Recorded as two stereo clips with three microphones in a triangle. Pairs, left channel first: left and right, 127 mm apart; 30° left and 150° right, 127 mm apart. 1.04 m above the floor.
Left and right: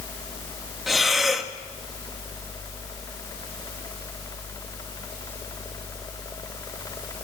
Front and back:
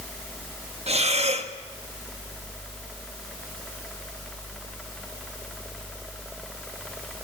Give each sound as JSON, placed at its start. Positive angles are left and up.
{"t": 0.9, "sound": "breathing", "azimuth_deg": 180, "distance_m": 1.6}